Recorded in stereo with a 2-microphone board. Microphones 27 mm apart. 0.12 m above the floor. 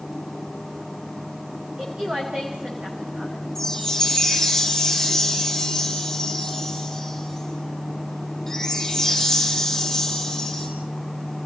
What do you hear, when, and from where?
1.8 s a woman speaking: 45° right (ahead or behind), 6.5 m
3.5 s a chime: 10° left (ahead or behind), 5.5 m